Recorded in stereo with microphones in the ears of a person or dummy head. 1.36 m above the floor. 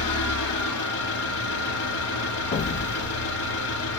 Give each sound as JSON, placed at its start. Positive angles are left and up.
{"t": 0.0, "sound": "an engine running", "side_deg": 65, "distance_m": 1.5}
{"t": 2.5, "sound": "an explosion", "side_deg": 35, "distance_m": 0.8}